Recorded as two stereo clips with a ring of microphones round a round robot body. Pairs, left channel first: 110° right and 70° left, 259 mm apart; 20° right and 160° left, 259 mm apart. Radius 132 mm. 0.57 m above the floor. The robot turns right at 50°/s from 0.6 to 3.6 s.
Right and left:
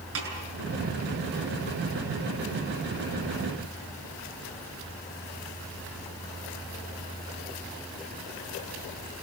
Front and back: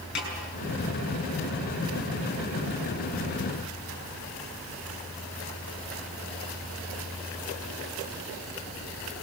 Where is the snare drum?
30° left, 7 m.